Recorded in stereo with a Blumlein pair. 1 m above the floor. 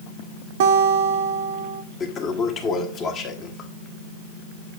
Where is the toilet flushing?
30° left, 1.8 m.